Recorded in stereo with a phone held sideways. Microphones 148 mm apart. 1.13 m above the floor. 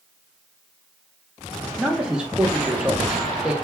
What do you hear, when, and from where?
1.8 s a man speaking: 5° right (ahead or behind), 0.6 m